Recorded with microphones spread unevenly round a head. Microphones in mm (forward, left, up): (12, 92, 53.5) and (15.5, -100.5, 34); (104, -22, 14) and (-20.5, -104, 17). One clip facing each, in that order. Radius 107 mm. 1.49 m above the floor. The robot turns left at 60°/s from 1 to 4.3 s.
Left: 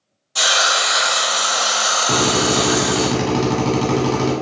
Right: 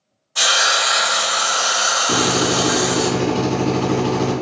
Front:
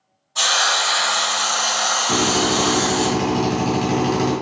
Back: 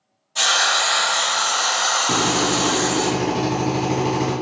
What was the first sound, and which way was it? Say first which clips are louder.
A hiss: left 1 dB, even; 140° left.